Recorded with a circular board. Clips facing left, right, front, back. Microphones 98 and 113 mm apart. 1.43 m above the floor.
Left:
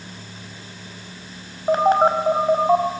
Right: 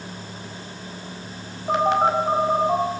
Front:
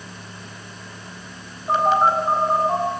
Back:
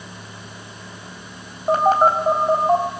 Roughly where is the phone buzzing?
Behind left.